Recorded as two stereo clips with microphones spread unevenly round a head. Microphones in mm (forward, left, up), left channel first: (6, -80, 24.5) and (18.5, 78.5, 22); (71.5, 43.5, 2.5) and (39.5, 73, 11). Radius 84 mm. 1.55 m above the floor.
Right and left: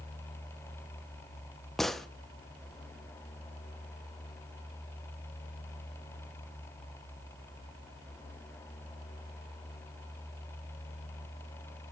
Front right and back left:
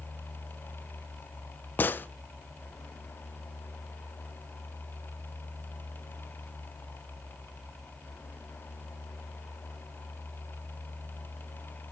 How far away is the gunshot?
About 0.6 m.